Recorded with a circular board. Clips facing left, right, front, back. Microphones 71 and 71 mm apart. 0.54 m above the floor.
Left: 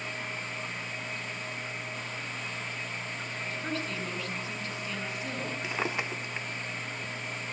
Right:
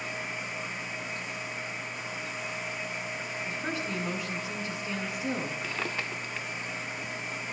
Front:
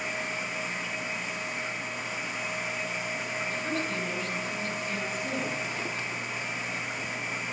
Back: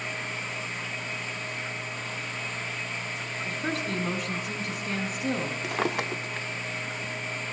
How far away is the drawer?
About 0.6 m.